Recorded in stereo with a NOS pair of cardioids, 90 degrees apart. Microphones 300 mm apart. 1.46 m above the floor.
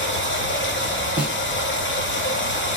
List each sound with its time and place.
0.0 s running water: 40° left, 1.1 m
1.2 s a snare drum: 5° right, 1.2 m